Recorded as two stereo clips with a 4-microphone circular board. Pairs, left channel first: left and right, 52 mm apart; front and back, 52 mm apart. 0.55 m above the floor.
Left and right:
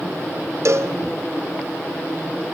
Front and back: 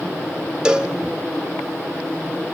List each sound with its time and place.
0.7 s a cowbell: 105° right, 0.8 m